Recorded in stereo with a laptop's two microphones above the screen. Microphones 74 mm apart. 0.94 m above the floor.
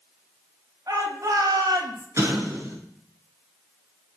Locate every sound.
0.9 s a shout: 50° right (ahead or behind), 7 m; by 2.1 s 55° right (ahead or behind), 6.5 m
2.2 s an explosion: 40° right (ahead or behind), 7.5 m